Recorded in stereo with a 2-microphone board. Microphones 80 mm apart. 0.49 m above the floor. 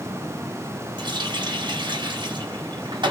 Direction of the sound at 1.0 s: 75° right (ahead or behind).